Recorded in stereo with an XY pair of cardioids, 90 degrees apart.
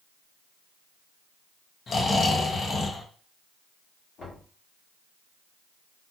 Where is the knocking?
60° left, 1.7 m.